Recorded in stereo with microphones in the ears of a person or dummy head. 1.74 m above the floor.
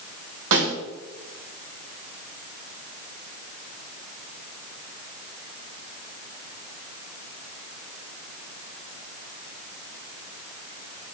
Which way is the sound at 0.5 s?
70° right (ahead or behind).